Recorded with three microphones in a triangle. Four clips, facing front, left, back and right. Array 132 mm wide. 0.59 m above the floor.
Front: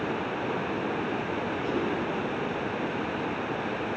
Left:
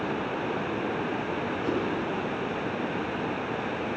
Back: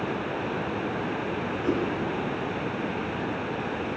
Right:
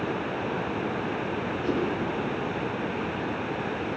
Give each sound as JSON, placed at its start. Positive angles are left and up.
{"t": 1.6, "sound": "a whoosh", "azimuth_deg": 160, "distance_m": 3.0}